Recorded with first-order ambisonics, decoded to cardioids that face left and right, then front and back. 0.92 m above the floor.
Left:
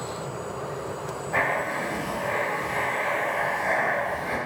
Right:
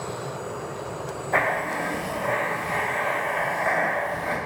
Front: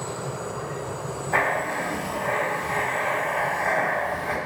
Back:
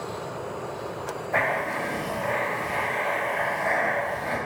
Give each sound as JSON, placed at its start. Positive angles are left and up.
{"t": 1.3, "sound": "writing", "azimuth_deg": -20, "distance_m": 1.7}